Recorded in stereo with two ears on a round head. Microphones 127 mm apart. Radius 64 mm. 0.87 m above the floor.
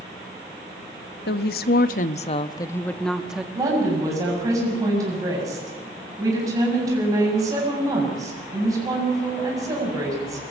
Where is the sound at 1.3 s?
75° left (ahead or behind), 1.1 m; by 3.5 s 5° right (ahead or behind), 1.2 m.